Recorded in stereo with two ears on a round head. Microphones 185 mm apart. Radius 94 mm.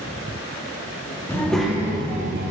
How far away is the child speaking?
About 1.0 m.